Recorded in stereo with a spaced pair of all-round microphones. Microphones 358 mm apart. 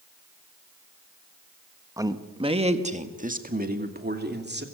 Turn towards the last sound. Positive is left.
turn(degrees=-30)  # may be behind; listen again after turning